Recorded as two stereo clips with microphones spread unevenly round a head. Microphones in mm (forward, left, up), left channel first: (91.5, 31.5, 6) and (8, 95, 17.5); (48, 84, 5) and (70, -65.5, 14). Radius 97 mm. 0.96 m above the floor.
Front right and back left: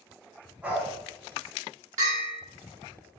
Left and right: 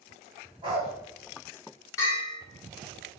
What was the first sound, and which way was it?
A dog barking, 140° right.